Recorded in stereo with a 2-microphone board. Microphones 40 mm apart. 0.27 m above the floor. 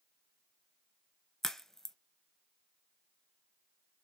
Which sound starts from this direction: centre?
A crack, at 1.4 s.